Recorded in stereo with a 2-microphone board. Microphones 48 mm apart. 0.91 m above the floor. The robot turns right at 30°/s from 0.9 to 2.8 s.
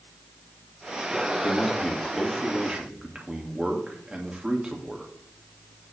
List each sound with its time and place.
1.4 s a man speaking: 165° left, 2.0 m; by 5.1 s 155° right, 2.0 m